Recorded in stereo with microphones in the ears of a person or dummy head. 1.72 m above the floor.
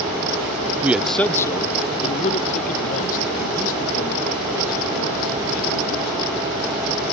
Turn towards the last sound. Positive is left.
turn(degrees=50)  # may be behind; listen again after turning